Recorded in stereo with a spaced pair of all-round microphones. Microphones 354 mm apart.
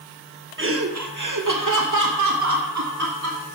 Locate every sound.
0.6 s laughter: 35° right (ahead or behind), 0.8 m; by 3.5 s 45° right (ahead or behind), 2.5 m